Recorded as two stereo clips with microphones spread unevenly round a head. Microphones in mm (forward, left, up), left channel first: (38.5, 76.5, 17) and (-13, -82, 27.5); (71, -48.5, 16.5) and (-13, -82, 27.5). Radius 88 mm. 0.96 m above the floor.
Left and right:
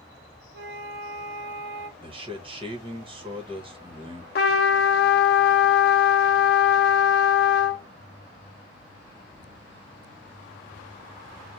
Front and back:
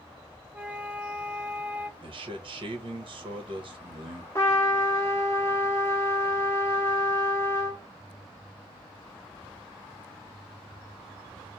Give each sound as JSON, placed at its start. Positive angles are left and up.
{"t": 0.5, "sound": "a flute", "azimuth_deg": -80, "distance_m": 0.8}
{"t": 2.0, "sound": "a man speaking", "azimuth_deg": -165, "distance_m": 1.2}
{"t": 4.3, "sound": "a trumpet", "azimuth_deg": 100, "distance_m": 0.5}